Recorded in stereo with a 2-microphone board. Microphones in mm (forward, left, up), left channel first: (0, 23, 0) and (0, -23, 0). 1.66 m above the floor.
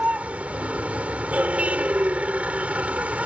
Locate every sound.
0.0 s a vehicle: 30° right (ahead or behind)